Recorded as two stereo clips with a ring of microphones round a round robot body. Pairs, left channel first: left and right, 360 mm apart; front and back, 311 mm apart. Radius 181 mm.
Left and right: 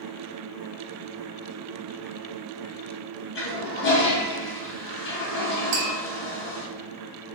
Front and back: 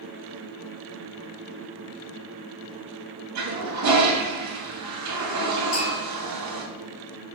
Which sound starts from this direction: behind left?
A toilet flushing, at 3.4 s.